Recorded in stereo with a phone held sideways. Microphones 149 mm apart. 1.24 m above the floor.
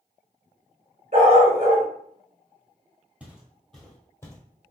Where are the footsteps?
10° right (ahead or behind), 1.4 m; by 4.4 s 20° left (ahead or behind), 1.4 m.